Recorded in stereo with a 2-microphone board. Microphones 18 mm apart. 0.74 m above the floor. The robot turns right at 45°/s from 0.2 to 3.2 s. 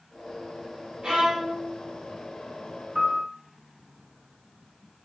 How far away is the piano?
About 1.0 m.